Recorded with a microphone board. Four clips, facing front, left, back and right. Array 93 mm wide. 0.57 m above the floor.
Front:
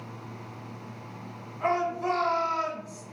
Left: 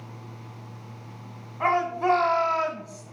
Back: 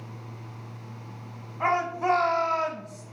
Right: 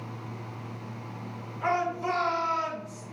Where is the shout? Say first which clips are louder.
Left 4 dB, back 2 dB; 125° left, 4 m; by 3.0 s 105° left, 2.5 m.